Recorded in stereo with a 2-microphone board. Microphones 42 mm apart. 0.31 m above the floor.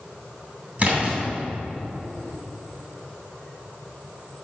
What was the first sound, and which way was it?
A splash, 30° right (ahead or behind).